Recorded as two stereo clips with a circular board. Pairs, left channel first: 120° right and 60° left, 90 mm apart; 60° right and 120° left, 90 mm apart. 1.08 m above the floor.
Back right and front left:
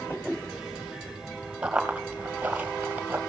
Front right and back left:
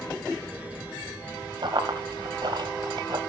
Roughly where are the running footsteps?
Behind left.